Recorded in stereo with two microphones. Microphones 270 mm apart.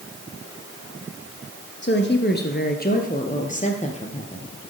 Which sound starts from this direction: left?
A woman speaking, at 1.8 s.